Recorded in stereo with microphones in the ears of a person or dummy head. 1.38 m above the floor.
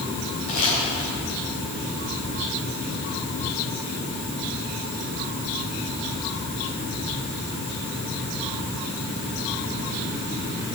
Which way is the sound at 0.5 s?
55° left (ahead or behind).